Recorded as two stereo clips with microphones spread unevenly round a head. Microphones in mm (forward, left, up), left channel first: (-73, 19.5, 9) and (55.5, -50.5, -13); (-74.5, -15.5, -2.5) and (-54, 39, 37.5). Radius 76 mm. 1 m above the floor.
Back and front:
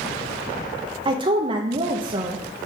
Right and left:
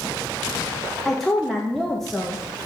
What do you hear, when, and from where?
1.1 s a woman speaking: 60° right, 0.7 m